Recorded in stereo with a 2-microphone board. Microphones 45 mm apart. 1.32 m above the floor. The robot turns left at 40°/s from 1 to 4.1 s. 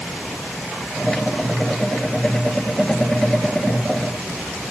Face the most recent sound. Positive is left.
No sound to turn to.